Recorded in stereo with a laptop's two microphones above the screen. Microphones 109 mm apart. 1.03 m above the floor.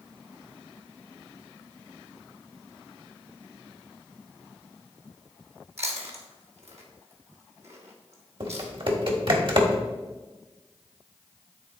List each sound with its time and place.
5.8 s chewing: 85° right, 1.5 m
8.4 s typing on a keyboard: 55° right (ahead or behind), 1.4 m